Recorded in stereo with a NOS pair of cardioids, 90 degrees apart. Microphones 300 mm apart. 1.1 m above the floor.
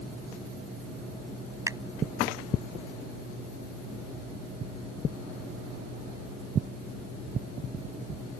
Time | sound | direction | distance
1.7 | a finger snap | 10° right | ?